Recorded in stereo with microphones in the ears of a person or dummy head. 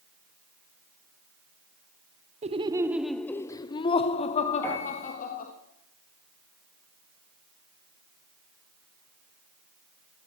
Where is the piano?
20° left (ahead or behind), 5 m.